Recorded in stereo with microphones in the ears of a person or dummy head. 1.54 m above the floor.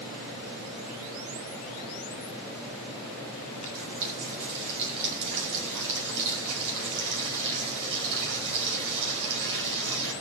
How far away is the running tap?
About 5.5 m.